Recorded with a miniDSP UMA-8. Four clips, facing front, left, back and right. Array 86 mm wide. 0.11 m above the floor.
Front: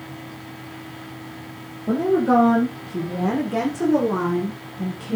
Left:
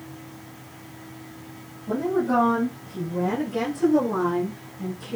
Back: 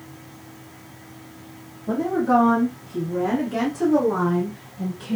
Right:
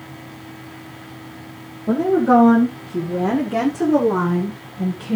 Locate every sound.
1.9 s a woman speaking: 60° right, 5.5 m; by 5.2 s 80° right, 6.5 m